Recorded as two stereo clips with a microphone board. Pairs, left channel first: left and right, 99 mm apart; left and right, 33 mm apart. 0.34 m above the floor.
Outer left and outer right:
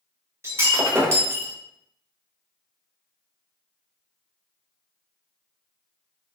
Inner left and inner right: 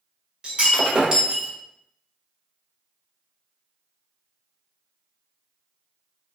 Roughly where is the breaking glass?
Right.